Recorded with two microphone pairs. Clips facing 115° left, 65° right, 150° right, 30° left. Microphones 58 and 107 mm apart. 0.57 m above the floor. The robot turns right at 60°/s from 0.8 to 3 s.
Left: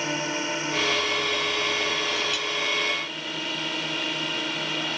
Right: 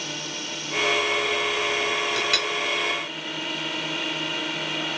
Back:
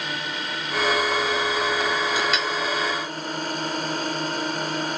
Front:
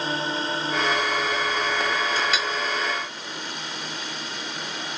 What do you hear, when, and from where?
0.0 s a drone: 80° left; by 5.0 s 150° right
2.2 s a clink: 65° right; by 2.5 s 45° right